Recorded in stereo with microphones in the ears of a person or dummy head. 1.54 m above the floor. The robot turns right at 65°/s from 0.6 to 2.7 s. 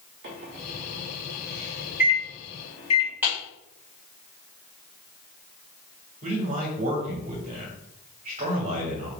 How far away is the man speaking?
About 1.5 m.